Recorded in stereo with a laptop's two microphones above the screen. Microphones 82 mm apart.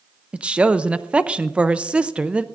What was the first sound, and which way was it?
A woman speaking, 15° right (ahead or behind).